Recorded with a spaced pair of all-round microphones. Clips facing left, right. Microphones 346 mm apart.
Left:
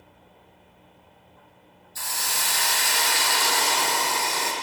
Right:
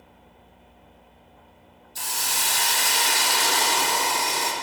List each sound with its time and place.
1.9 s a hiss: 45° right (ahead or behind), 0.6 m